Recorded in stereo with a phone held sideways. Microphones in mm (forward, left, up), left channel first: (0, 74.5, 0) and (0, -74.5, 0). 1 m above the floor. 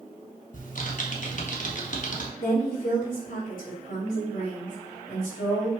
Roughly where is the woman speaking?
Left.